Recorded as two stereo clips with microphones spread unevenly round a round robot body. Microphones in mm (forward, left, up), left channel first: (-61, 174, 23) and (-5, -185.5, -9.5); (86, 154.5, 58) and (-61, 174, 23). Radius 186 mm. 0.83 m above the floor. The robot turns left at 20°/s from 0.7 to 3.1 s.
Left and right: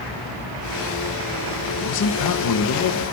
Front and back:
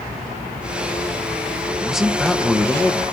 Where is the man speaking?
110° left, 0.8 m; by 3.0 s 85° left, 0.8 m.